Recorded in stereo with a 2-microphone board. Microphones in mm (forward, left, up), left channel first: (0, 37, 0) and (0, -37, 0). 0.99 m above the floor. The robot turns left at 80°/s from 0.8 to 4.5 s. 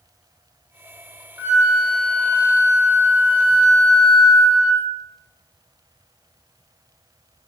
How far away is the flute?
About 1.3 m.